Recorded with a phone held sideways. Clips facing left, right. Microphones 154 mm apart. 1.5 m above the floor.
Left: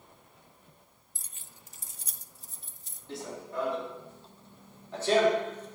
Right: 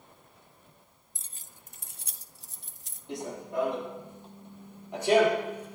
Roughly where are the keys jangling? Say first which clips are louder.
Left 1 dB; centre.